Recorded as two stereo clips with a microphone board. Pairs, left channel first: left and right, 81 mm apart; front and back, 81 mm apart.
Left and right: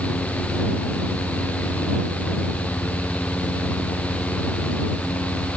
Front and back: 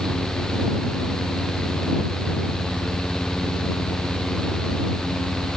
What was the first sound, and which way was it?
Only background noise.